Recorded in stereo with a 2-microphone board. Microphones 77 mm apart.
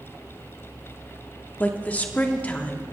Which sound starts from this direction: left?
A woman speaking, at 1.6 s.